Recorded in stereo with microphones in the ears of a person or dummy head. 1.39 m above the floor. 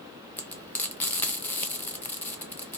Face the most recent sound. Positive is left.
turn(degrees=10)  # may be behind; listen again after turning